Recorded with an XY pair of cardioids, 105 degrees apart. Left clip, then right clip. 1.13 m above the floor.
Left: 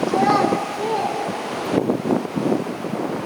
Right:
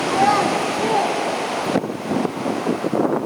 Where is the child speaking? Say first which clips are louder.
Right 2 dB; 15° right, 1.2 m; by 2.0 s 35° right, 4 m.